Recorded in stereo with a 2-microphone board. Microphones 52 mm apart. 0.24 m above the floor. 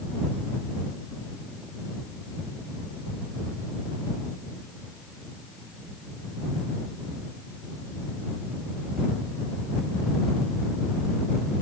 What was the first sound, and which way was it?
Only background noise.